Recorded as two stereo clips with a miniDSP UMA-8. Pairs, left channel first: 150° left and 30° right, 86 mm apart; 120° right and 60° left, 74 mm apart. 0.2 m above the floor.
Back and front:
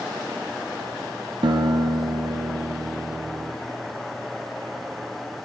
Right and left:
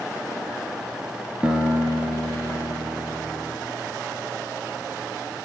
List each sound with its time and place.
1.4 s a guitar: 15° right, 0.6 m